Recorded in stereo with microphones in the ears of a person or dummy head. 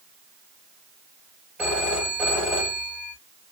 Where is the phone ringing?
5° right (ahead or behind), 4.5 m.